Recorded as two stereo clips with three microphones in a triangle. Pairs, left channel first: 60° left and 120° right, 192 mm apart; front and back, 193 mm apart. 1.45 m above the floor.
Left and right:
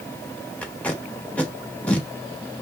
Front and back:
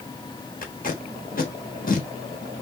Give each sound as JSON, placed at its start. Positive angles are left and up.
{"t": 0.6, "sound": "tape being pulled", "azimuth_deg": -20, "distance_m": 1.2}